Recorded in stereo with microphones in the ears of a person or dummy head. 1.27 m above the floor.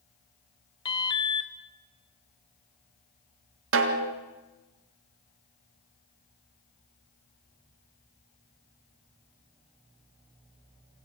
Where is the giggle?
No giggle in this recording.